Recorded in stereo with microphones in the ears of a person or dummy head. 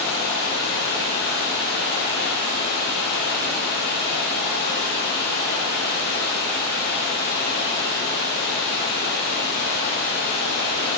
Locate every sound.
0.0 s running water: 65° left (ahead or behind), 1.6 m